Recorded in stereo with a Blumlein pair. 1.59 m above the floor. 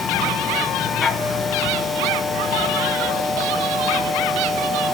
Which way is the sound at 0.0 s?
15° left.